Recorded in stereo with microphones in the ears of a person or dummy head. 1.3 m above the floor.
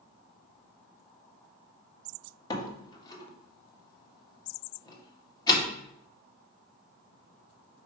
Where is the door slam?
25° left (ahead or behind), 1.4 m.